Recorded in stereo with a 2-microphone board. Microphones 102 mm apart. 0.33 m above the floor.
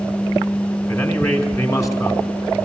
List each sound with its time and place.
0.9 s a man speaking: 30° left (ahead or behind), 3.5 m